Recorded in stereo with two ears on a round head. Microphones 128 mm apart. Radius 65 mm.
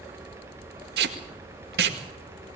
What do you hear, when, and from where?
1.0 s tape being pulled: 80° right, 2.0 m